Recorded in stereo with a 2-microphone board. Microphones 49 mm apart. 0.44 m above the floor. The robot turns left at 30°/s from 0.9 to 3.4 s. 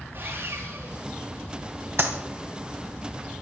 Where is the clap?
65° right (ahead or behind), 2.5 m; by 2.1 s 60° right (ahead or behind), 2.5 m.